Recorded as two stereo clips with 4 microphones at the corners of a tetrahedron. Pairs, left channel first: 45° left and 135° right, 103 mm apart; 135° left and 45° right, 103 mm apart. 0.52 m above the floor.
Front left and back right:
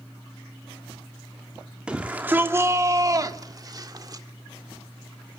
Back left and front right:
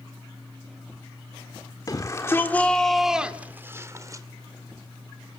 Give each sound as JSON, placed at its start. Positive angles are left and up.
{"t": 1.9, "sound": "a shout", "azimuth_deg": 150, "distance_m": 1.5}